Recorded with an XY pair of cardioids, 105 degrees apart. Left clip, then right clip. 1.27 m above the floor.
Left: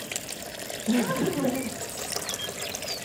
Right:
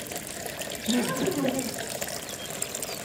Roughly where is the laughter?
Ahead left.